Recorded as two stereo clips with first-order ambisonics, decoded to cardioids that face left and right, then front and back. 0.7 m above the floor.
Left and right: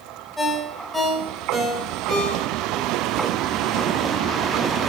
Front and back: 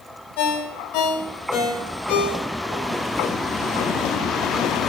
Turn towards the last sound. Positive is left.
turn(degrees=10)